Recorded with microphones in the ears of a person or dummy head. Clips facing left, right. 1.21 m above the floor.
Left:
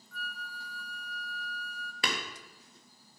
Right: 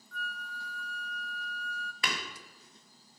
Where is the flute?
5° left (ahead or behind), 0.7 m.